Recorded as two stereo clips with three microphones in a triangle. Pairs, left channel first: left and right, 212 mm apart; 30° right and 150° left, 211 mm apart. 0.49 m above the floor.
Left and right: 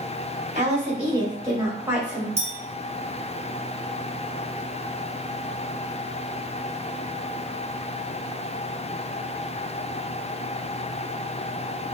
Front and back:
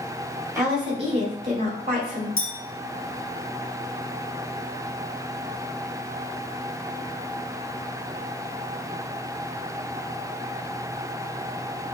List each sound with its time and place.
0.6 s a woman speaking: 135° right, 1.8 m; by 2.3 s straight behind, 2 m
2.4 s a clink: 30° right, 1.3 m